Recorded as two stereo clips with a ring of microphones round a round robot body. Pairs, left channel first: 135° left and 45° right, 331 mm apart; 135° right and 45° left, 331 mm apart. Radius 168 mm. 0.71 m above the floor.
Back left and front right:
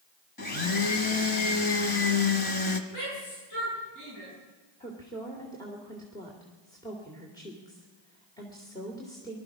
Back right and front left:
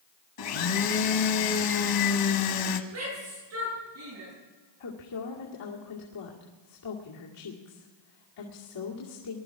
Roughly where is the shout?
Left.